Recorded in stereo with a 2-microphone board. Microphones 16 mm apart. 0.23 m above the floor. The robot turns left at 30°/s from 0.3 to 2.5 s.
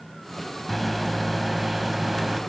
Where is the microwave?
10° left (ahead or behind), 1.1 m; by 2.4 s 15° right (ahead or behind), 1.1 m.